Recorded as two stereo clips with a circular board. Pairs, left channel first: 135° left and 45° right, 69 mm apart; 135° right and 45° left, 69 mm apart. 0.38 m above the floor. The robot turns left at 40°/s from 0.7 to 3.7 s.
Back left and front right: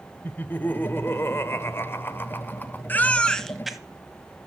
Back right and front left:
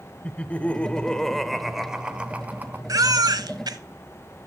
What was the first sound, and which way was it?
Laughter, 170° left.